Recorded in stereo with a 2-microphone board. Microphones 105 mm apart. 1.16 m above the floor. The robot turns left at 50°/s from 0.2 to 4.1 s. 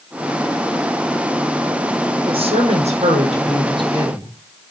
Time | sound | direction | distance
2.2 | a woman speaking | 55° right | 7 m